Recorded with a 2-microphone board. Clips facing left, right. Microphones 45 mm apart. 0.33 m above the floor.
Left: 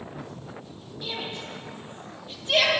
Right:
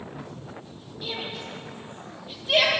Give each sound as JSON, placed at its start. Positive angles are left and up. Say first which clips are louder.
{"t": 1.0, "sound": "a shout", "louder": "even", "side_deg": -5, "distance_m": 10.0}